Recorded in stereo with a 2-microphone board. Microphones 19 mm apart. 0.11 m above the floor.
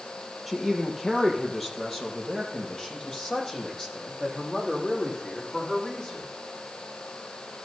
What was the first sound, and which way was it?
A man speaking, centre (ahead or behind).